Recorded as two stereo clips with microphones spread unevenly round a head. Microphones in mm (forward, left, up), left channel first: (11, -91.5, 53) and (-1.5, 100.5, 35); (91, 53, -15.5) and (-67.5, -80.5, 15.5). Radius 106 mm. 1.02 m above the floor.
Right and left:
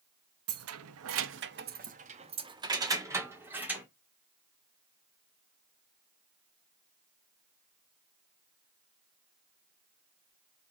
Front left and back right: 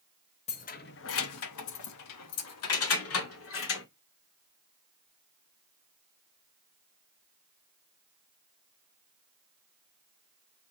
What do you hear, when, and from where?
0.5 s keys jangling: 105° left, 0.9 m; by 3.9 s 10° left, 2 m